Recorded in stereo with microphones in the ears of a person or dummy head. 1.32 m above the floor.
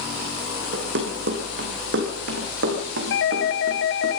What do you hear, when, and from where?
0.7 s running footsteps: 60° right (ahead or behind), 4 m
3.1 s a doorbell: 60° left (ahead or behind), 1.2 m